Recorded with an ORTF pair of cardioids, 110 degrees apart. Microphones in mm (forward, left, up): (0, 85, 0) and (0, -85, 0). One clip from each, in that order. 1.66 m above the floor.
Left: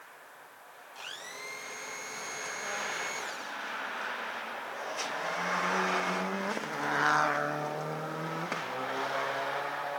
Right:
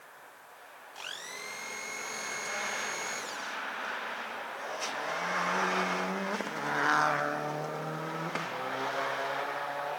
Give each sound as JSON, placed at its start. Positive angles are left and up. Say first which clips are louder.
{"t": 0.9, "sound": "a blender", "louder": "right 1 dB", "azimuth_deg": -15, "distance_m": 1.0}